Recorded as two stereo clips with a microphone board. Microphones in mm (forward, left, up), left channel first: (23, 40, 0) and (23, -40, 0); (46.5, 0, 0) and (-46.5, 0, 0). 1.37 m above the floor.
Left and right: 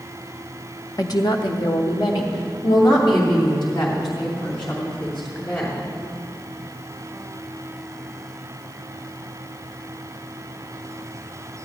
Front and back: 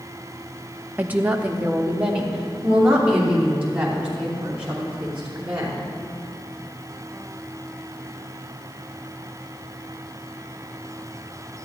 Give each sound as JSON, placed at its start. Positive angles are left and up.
{"t": 1.0, "sound": "a woman speaking", "azimuth_deg": 110, "distance_m": 0.5}